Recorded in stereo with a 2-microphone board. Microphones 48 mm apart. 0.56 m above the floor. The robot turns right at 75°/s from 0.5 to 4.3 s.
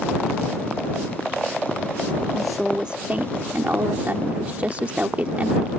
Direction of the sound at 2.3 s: 170° left.